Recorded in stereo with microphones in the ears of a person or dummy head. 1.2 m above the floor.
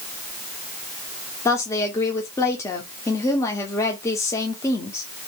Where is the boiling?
No boiling in this recording.